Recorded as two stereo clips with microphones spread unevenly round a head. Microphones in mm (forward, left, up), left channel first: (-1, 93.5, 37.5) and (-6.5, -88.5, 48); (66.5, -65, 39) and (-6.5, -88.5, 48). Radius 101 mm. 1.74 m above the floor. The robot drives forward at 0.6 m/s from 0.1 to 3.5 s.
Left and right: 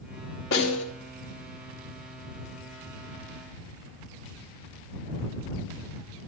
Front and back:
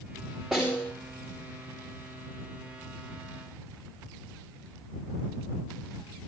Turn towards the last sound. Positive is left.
turn(degrees=135)